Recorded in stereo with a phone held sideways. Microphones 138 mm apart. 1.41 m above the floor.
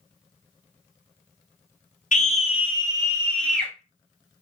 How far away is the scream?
About 0.6 m.